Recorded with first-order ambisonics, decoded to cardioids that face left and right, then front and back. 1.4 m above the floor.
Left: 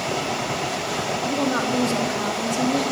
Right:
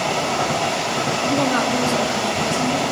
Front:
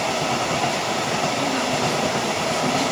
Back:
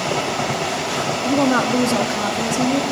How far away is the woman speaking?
About 3.5 m.